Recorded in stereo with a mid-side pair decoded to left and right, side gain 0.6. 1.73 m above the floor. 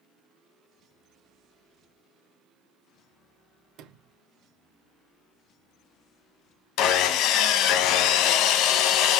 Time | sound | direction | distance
3.8 | a sliding door | 65° right | 1.1 m
6.8 | sawing | 70° left | 0.8 m